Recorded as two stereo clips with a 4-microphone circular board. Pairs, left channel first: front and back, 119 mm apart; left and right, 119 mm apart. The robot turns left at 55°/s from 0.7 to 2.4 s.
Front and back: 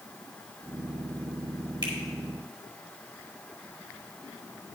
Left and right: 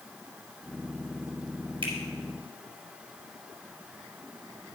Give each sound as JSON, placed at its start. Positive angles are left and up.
{"t": 1.8, "sound": "a finger snap", "azimuth_deg": -135, "distance_m": 3.0}